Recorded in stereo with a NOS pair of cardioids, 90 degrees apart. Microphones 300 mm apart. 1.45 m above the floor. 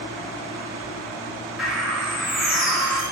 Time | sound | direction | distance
1.6 | a bird | straight ahead | 2.5 m